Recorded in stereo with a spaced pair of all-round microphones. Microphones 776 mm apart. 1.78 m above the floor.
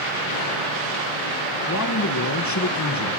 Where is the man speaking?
20° left (ahead or behind), 1.2 m.